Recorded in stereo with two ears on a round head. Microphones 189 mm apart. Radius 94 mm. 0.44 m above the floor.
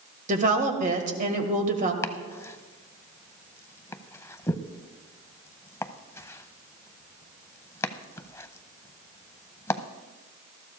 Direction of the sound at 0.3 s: 35° right (ahead or behind).